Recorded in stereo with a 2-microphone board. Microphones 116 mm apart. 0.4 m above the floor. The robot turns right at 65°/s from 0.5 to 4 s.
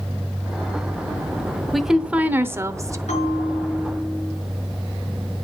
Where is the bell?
80° left, 6.5 m; by 4.3 s 140° left, 6.5 m.